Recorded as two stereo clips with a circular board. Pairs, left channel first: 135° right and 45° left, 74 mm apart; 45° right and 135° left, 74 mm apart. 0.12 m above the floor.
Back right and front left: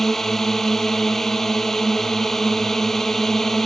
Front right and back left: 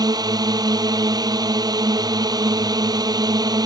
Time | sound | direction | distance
0.0 | a drone | 140° left | ?